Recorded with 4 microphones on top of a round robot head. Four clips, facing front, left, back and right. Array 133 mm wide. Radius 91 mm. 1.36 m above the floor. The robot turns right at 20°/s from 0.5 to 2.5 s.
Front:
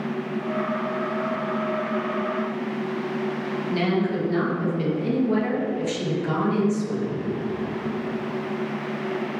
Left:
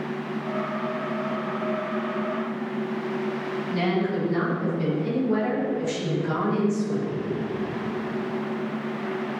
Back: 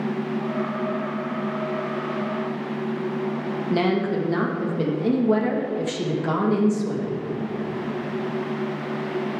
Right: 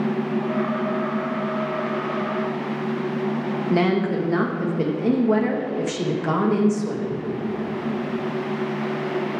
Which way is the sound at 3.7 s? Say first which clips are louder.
Right 4 dB, back 2 dB; 120° right.